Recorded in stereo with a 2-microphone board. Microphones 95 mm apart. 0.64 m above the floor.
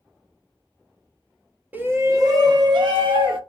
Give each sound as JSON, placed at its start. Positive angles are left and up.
{"t": 1.7, "sound": "a shout", "side_deg": -20, "distance_m": 0.5}